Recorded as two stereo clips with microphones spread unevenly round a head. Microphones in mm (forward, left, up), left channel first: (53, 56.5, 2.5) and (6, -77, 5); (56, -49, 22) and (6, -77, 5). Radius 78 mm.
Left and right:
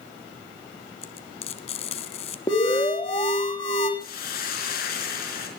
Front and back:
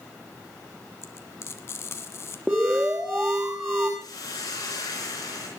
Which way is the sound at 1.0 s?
35° left.